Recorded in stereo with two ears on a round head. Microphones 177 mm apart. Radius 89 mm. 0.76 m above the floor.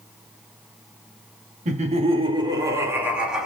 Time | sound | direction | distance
1.6 | laughter | 35° right (ahead or behind) | 1.6 m